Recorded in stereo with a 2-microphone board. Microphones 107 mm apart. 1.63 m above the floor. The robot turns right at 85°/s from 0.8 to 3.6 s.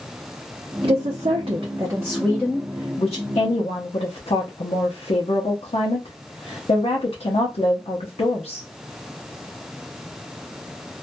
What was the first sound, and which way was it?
A woman speaking, 120° right.